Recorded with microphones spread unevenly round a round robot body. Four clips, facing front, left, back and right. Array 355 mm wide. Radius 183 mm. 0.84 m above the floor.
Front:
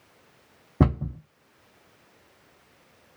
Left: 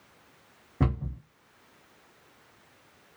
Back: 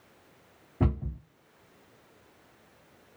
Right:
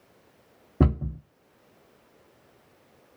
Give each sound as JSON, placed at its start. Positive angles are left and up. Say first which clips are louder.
{"t": 0.8, "sound": "a cupboard door", "louder": "right 5 dB, front 7 dB", "azimuth_deg": -30, "distance_m": 0.7}